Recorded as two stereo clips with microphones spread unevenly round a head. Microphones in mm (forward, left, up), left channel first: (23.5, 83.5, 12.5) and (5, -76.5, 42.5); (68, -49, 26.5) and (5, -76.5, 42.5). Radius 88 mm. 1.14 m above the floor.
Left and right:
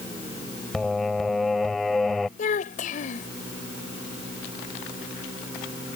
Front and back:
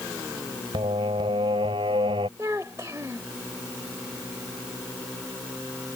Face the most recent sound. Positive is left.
turn(degrees=135)